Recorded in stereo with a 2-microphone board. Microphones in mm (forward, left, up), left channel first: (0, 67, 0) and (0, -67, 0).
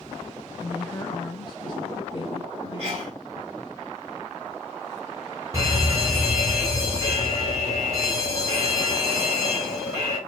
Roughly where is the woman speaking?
Left.